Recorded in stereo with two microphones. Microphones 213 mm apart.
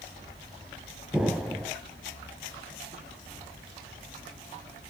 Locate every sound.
1.1 s an explosion: 5° right (ahead or behind), 0.9 m